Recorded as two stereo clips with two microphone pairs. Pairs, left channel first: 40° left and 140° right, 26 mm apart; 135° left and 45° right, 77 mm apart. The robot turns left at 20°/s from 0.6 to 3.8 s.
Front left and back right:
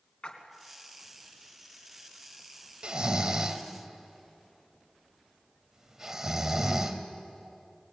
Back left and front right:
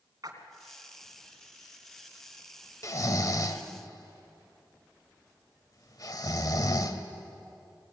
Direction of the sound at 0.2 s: 10° right.